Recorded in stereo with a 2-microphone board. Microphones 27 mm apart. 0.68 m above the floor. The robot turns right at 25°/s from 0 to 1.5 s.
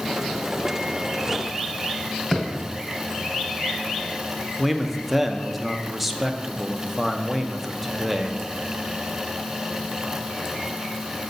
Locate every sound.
2.3 s a thud: 15° left (ahead or behind), 2 m
4.6 s a man speaking: 5° right (ahead or behind), 0.6 m